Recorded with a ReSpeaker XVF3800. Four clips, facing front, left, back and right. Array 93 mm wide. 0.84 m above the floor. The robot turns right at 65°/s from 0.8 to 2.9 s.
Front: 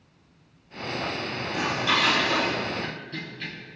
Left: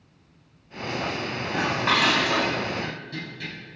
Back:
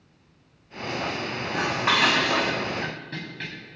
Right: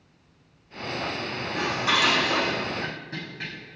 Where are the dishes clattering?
120° left, 3.5 m; by 3.5 s 155° right, 3.5 m.